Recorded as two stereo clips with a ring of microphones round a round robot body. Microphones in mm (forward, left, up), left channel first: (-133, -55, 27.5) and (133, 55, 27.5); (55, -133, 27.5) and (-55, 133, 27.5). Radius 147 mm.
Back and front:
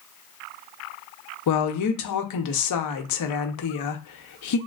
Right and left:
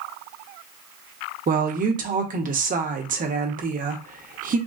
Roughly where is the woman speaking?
Behind.